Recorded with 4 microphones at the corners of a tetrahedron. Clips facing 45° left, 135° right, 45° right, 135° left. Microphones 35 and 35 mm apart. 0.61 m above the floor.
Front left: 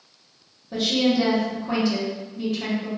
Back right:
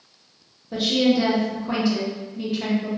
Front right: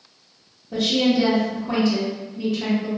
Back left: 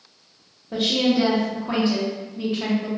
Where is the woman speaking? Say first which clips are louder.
Back right 1 dB, front right 1 dB; 150° left, 1.1 m.